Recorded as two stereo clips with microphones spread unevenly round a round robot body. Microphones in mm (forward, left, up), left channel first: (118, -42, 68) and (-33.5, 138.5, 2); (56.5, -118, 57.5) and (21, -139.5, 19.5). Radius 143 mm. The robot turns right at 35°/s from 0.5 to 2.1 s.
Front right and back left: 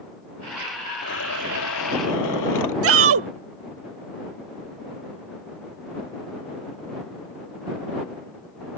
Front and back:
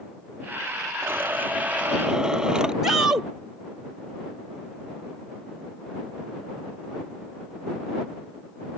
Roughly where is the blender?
Right.